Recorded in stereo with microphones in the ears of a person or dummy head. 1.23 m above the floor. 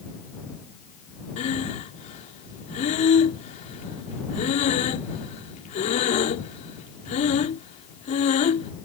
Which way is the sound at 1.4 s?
40° left (ahead or behind).